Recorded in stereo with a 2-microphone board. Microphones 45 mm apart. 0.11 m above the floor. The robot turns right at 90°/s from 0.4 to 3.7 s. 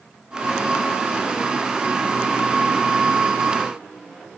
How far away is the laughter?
No laughter in this recording.